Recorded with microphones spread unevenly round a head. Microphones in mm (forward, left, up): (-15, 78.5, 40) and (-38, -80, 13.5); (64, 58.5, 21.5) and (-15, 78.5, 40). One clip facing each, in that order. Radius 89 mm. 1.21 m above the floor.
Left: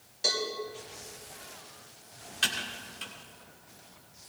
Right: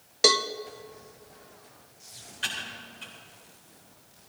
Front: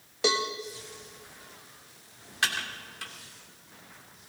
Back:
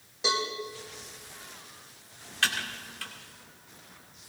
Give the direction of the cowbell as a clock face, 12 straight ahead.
3 o'clock.